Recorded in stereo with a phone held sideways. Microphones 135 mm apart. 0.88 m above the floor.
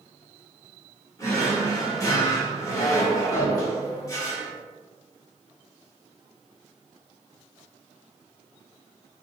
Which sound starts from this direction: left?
A drawer, at 1.2 s.